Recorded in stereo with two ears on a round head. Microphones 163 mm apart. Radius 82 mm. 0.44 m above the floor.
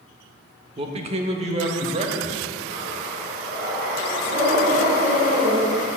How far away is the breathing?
About 3.5 m.